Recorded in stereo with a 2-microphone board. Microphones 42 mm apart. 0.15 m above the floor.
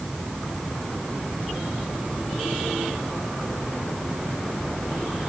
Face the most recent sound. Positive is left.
No sound to turn to.